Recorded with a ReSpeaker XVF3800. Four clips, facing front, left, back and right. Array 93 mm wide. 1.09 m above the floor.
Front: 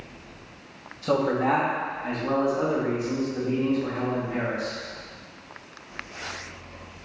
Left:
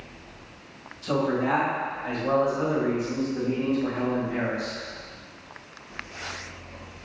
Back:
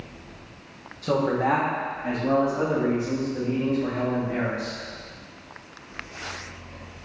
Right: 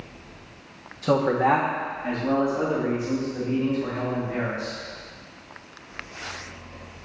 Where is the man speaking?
80° right, 1.2 m; by 4.8 s 175° right, 5 m.